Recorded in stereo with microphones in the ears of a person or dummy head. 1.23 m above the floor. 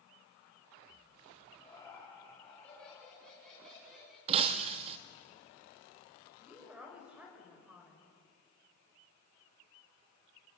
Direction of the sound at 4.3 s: 35° right (ahead or behind).